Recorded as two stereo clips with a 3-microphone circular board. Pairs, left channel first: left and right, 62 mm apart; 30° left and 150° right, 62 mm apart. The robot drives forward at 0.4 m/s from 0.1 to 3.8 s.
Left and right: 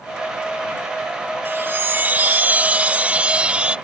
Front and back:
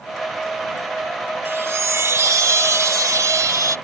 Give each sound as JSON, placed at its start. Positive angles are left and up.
{"t": 1.4, "sound": "a chime", "azimuth_deg": -120}